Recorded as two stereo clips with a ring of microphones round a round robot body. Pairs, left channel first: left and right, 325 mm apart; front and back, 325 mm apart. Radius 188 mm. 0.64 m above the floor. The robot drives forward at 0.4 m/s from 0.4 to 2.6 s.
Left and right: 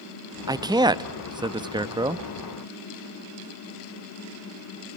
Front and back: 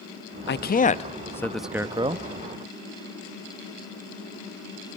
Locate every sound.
0.5 s a man speaking: 20° right, 0.9 m; by 2.2 s 150° right, 0.8 m